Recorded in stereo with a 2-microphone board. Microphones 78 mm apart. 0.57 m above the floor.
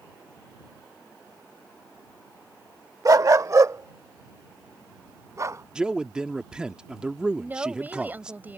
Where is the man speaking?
10° right (ahead or behind).